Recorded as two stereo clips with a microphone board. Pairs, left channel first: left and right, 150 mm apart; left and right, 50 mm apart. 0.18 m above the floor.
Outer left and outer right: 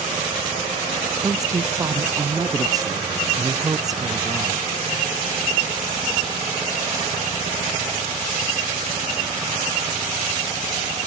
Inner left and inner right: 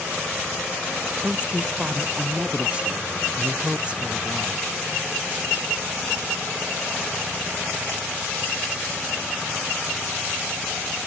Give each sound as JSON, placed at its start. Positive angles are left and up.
{"t": 1.2, "sound": "a woman speaking", "side_deg": -25}